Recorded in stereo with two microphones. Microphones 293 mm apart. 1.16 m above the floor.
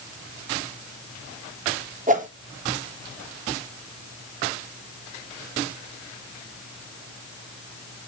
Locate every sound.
2.1 s a whoosh: 25° right (ahead or behind), 1.2 m